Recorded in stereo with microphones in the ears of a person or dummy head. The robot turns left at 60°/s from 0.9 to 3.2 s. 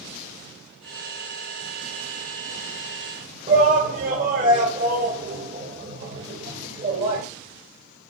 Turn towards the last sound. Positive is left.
turn(degrees=-45)  # may be behind; listen again after turning